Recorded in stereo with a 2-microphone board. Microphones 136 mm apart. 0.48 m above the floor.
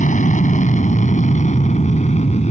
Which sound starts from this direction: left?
An aircraft, at 0.0 s.